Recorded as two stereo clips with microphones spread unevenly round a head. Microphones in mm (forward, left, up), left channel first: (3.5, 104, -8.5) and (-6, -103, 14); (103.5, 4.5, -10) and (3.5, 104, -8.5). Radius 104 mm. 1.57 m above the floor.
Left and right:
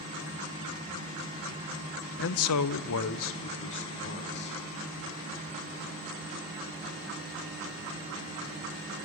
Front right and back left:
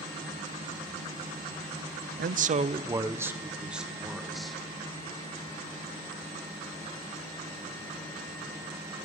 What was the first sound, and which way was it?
A man speaking, 125° left.